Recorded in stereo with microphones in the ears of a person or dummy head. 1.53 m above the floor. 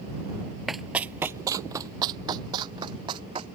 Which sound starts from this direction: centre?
Running footsteps, at 0.7 s.